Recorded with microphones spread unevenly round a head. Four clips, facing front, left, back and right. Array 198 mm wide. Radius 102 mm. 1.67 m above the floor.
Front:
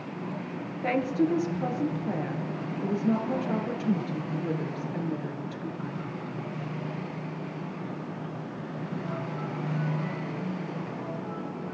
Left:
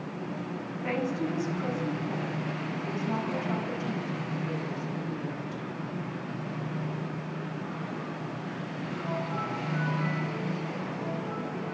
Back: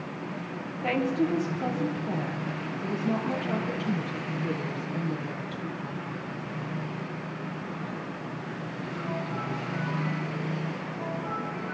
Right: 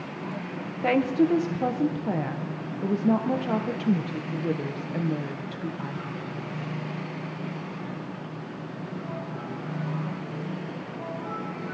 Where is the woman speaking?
85° right, 1.6 m.